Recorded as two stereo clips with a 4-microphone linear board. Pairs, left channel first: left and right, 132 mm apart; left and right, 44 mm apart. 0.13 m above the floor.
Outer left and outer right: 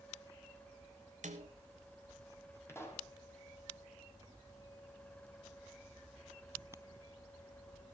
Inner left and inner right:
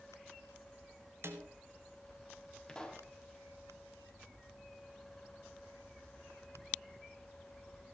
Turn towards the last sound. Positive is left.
turn(degrees=20)  # may be behind; listen again after turning